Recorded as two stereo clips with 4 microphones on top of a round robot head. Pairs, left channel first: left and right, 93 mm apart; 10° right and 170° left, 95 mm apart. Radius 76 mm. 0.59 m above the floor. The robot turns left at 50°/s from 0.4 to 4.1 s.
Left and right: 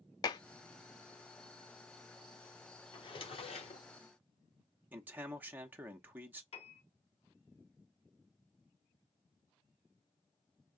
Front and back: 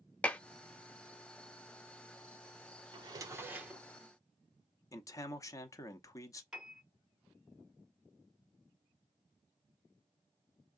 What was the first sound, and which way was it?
Dishes clattering, 65° left.